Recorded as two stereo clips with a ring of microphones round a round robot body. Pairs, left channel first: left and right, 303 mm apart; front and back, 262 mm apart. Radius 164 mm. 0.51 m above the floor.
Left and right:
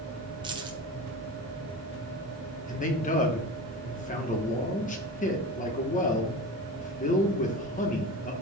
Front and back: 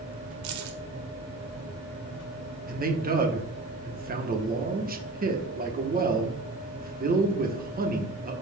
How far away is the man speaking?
About 1.3 m.